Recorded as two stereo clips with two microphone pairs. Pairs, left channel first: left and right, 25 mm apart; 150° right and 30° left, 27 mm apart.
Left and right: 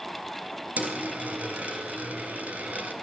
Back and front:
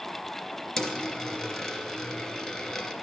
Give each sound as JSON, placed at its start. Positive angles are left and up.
{"t": 0.8, "sound": "a dropped coin", "azimuth_deg": -90, "distance_m": 2.5}